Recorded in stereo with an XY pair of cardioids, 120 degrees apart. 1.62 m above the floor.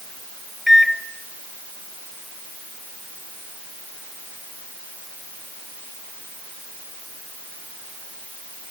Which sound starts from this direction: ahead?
A microwave, at 0.7 s.